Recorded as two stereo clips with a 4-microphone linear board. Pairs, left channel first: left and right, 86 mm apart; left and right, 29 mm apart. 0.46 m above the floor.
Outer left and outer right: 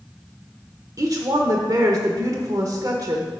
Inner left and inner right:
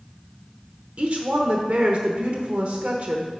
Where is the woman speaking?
45° right (ahead or behind), 0.9 m.